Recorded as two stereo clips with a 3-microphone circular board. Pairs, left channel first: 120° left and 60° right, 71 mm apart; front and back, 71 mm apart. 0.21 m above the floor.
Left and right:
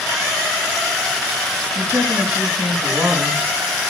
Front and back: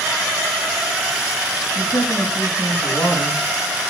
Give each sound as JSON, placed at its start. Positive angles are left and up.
{"t": 1.8, "sound": "a woman speaking", "azimuth_deg": -10, "distance_m": 6.5}